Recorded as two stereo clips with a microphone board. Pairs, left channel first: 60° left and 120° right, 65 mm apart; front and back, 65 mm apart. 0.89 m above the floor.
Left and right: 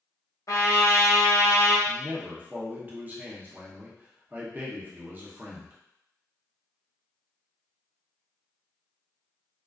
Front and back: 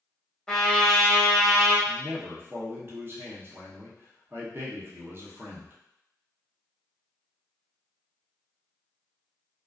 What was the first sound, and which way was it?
A trumpet, 75° left.